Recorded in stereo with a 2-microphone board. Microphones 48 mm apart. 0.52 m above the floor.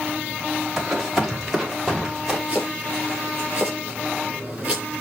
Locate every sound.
0.8 s running footsteps: 5° right (ahead or behind), 5 m; by 2.4 s 10° right (ahead or behind), 5.5 m
2.5 s chopping: 25° right (ahead or behind), 8 m